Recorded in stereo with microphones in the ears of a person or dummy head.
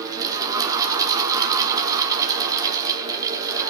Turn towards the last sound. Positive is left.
turn(degrees=-15)  # may be behind; listen again after turning